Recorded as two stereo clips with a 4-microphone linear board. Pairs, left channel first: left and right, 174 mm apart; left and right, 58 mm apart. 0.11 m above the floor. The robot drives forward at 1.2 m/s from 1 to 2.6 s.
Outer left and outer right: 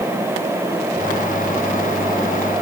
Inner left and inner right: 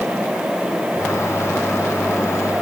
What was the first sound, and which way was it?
Only background noise.